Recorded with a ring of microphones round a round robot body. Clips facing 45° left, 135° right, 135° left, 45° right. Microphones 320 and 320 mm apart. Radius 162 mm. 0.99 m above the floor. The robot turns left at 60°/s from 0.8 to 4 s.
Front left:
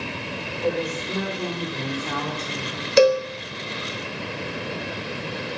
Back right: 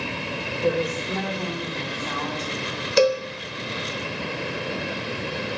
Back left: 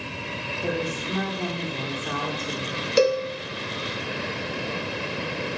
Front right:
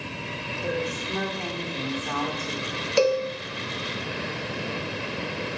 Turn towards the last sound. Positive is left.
turn(degrees=5)